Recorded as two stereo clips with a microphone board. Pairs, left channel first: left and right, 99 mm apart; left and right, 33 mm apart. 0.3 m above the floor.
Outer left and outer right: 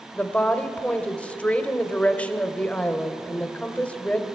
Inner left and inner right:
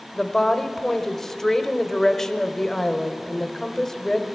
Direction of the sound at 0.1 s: 10° left (ahead or behind).